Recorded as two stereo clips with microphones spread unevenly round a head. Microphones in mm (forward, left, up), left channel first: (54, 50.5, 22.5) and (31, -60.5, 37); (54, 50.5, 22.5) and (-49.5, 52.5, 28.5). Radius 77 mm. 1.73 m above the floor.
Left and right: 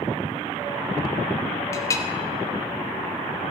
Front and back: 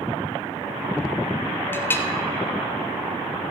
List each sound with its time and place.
1.7 s a clink: 40° left, 0.7 m